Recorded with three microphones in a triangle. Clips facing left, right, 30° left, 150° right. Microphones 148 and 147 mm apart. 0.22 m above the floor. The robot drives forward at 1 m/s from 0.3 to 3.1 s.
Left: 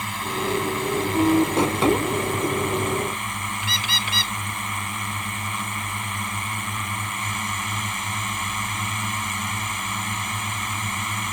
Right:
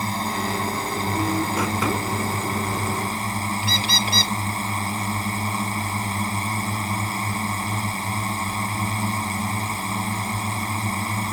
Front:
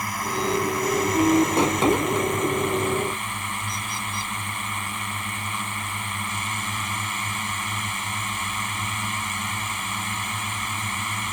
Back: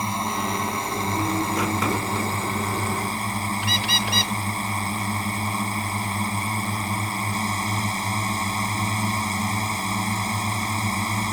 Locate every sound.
0.0 s a drone: 105° right; by 11.3 s 120° right
3.6 s a bird: 145° right